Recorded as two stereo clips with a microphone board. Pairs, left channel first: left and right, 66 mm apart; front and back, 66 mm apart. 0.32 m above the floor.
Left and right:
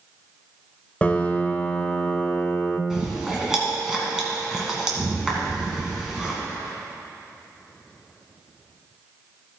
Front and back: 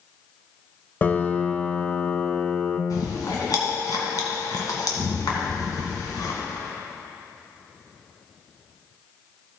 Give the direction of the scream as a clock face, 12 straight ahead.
No scream in this recording.